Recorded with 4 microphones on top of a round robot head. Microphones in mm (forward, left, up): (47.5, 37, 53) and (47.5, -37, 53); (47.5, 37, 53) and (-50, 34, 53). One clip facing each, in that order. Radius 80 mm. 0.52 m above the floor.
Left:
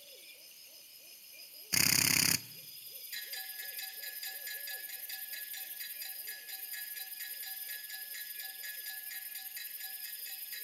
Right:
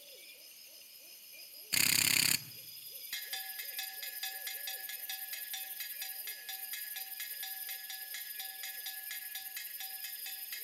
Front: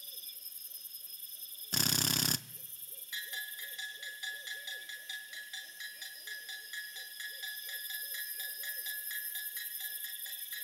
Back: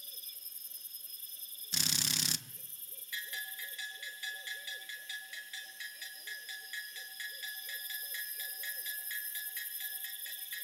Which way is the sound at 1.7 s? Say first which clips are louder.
Left 1 dB, front 5 dB; 15° left.